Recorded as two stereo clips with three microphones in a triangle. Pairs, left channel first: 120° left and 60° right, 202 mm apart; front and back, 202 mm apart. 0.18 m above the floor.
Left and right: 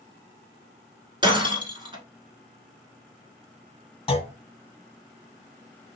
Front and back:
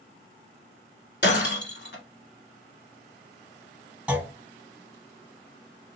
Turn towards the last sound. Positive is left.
turn(degrees=105)